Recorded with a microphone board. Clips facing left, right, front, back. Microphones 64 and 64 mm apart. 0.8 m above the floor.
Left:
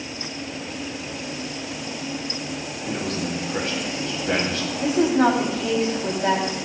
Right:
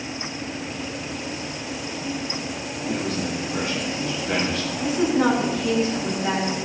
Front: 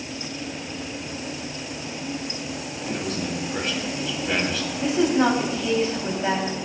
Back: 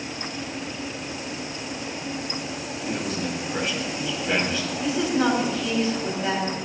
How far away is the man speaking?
About 6.5 m.